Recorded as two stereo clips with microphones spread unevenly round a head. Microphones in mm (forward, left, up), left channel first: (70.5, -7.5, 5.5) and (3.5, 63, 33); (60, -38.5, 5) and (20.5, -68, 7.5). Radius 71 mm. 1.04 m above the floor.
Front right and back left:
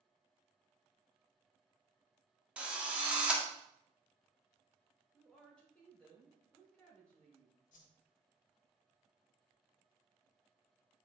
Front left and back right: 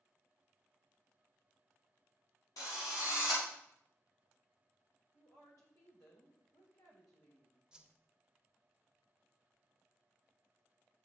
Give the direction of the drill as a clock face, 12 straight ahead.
10 o'clock.